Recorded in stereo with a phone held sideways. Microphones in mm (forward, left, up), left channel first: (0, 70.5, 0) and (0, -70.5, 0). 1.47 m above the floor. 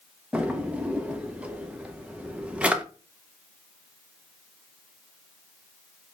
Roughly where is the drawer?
Centre.